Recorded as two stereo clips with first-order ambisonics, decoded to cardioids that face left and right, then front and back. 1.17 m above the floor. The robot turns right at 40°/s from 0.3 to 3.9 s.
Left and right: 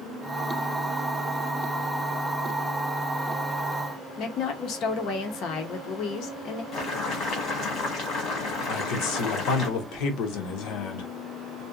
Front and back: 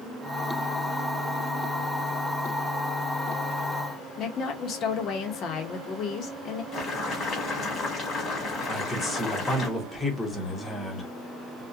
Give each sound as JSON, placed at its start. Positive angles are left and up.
{"t": 4.2, "sound": "a woman speaking", "azimuth_deg": 50, "distance_m": 0.6}
{"t": 6.7, "sound": "boiling", "azimuth_deg": 55, "distance_m": 1.3}
{"t": 8.7, "sound": "a man speaking", "azimuth_deg": 80, "distance_m": 0.8}